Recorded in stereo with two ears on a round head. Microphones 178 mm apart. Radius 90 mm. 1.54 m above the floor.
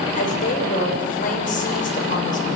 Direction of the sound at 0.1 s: 45° left (ahead or behind).